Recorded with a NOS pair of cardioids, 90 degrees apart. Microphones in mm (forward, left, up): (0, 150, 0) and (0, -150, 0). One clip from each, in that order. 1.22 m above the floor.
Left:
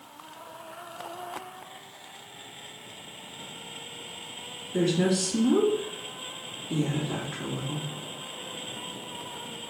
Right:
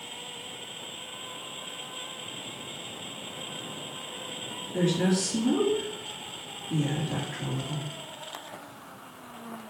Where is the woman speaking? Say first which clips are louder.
Left 2 dB; 40° left, 2 m.